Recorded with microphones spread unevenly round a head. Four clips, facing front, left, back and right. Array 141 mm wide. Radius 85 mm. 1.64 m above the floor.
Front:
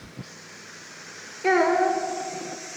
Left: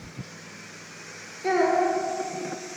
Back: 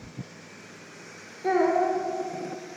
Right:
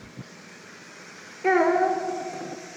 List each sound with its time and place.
1.4 s a child speaking: 10° right, 0.9 m